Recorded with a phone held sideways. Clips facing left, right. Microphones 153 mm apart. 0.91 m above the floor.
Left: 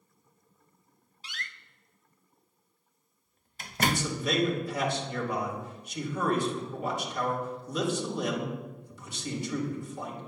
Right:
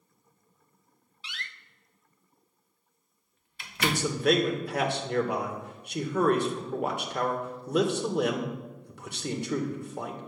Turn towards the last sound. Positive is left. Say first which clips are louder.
# right 3 dB
turn(degrees=-65)  # may be behind; listen again after turning